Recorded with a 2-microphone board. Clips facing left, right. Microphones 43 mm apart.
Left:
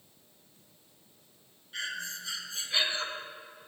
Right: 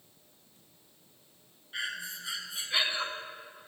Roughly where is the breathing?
Centre.